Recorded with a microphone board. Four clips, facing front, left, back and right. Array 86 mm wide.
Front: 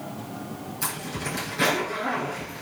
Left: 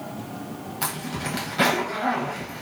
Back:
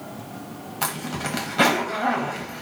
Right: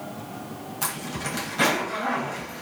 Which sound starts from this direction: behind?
A zipper, at 0.8 s.